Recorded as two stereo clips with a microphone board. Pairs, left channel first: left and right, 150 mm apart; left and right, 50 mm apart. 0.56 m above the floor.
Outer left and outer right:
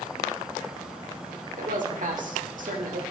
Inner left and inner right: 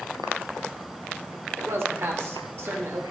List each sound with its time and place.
1.6 s a man speaking: 60° right (ahead or behind), 1.5 m